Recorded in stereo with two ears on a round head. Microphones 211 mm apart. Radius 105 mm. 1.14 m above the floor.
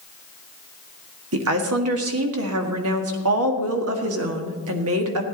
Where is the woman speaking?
70° right (ahead or behind), 1.7 m.